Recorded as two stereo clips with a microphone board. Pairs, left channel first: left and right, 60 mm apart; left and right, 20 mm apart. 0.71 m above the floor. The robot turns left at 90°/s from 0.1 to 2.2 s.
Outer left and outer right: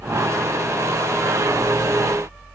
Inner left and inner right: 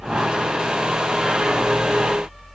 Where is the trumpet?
No trumpet in this recording.